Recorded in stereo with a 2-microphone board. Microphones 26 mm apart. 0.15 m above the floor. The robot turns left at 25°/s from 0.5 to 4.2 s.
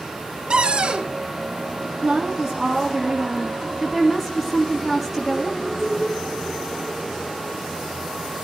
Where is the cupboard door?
40° right (ahead or behind), 1.9 m.